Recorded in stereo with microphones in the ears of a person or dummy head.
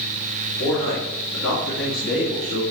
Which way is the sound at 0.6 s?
75° left (ahead or behind).